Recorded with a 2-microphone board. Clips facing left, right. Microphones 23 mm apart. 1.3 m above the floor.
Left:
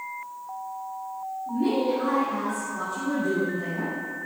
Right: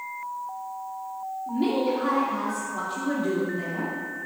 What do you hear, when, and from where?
1.5 s a woman speaking: 80° right, 3 m